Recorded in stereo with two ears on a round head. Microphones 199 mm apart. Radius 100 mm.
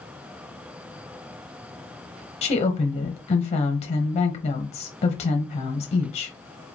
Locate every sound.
2.4 s a woman speaking: 30° left (ahead or behind), 0.8 m